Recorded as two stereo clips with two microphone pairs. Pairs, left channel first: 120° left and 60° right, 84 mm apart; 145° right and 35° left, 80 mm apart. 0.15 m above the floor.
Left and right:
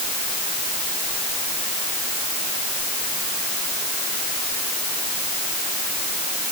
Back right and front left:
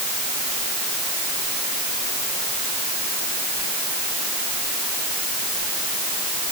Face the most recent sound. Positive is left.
No sound to turn to.